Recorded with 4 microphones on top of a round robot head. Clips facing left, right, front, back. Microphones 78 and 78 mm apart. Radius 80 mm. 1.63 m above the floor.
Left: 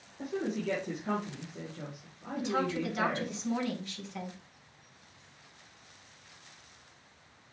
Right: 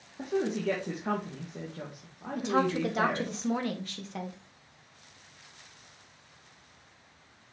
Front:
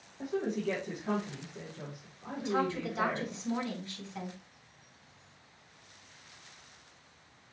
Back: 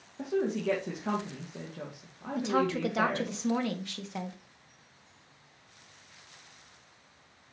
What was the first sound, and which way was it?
A woman speaking, 140° right.